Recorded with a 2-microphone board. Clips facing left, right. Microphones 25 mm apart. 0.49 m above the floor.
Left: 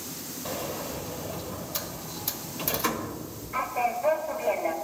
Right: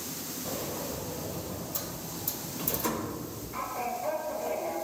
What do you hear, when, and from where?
0.5 s a sliding door: 55° left (ahead or behind), 0.6 m